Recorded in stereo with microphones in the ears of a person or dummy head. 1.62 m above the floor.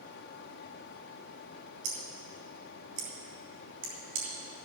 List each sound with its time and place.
1.8 s scissors: 65° right (ahead or behind), 3.5 m